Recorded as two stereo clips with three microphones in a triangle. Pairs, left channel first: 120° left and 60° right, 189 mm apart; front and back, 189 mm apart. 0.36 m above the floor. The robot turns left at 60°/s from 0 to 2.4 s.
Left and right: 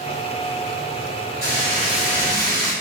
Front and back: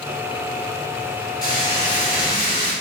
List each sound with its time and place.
1.4 s frying: 55° left, 1.8 m; by 2.7 s 5° right, 1.8 m